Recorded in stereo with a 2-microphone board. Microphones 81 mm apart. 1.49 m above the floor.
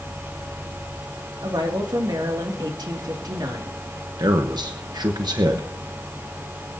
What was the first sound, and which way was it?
A woman speaking, 55° right (ahead or behind).